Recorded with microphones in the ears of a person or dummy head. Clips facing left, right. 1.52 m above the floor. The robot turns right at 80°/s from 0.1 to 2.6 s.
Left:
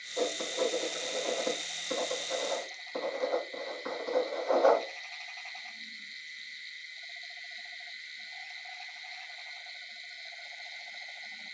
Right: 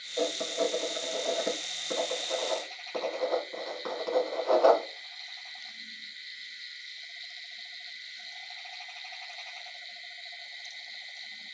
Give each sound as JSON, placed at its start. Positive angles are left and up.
{"t": 0.2, "sound": "writing", "side_deg": 70, "distance_m": 2.5}